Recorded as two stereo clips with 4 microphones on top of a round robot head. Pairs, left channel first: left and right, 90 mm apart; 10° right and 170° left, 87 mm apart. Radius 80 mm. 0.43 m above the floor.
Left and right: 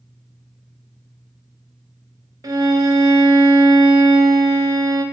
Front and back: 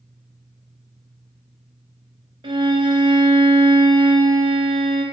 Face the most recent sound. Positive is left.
turn(degrees=-145)